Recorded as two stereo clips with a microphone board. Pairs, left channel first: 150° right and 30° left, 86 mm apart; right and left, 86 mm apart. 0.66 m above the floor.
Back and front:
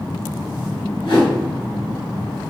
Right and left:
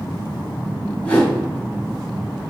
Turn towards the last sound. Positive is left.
turn(degrees=-160)